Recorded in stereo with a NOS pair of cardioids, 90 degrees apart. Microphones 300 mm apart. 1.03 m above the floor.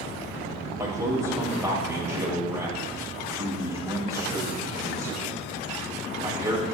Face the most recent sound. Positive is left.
turn(degrees=-10)